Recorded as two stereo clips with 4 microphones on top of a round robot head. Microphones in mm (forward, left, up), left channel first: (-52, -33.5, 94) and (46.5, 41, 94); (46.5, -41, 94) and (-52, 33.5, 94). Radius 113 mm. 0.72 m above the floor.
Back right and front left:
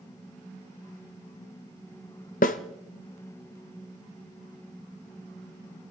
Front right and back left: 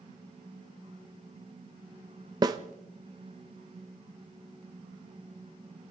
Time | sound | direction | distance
2.4 | a snare drum | 160° right | 0.6 m